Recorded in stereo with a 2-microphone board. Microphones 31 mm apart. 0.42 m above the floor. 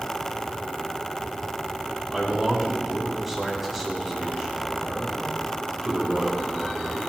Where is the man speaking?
Centre (ahead or behind), 4 m.